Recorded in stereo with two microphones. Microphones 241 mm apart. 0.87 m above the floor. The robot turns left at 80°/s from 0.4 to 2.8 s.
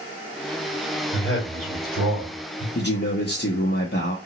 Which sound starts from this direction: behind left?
A man speaking, at 1.1 s.